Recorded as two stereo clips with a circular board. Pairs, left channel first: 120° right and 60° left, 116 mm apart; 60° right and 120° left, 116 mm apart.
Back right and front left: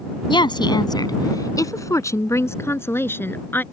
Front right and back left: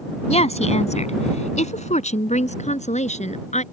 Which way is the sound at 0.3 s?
75° right.